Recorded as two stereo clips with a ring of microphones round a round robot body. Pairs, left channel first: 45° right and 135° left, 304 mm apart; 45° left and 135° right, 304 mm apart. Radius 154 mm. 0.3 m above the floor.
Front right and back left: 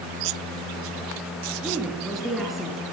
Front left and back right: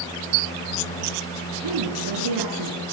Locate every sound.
1.6 s a woman speaking: 135° right, 4 m